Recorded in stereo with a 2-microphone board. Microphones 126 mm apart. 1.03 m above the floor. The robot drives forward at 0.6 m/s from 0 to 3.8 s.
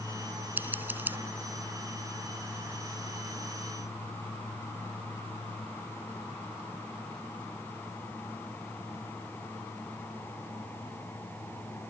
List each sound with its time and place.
0.6 s scissors: 15° right (ahead or behind)